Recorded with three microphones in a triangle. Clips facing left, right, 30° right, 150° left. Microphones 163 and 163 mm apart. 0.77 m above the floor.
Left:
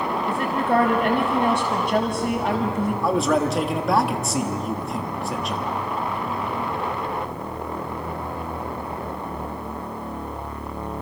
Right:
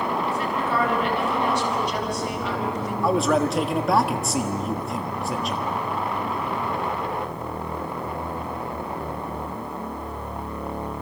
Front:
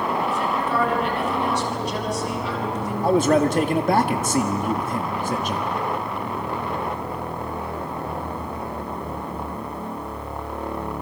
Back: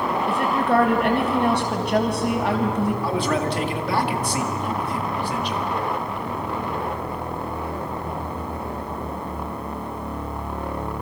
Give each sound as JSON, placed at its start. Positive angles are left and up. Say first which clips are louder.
{"t": 0.3, "sound": "a woman speaking", "louder": "left 3 dB, back 3 dB", "azimuth_deg": 130, "distance_m": 3.5}
{"t": 3.0, "sound": "a man speaking", "louder": "right 1 dB, front 5 dB", "azimuth_deg": 0, "distance_m": 1.5}